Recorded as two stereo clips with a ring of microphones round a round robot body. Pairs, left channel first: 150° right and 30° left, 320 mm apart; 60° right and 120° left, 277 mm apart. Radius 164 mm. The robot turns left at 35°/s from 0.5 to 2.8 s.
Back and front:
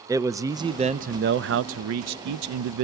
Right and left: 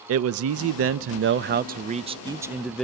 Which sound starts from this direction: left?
A man speaking, at 0.1 s.